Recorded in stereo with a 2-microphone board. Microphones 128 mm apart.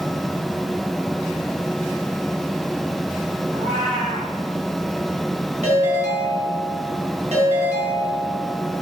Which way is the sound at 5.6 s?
60° right (ahead or behind).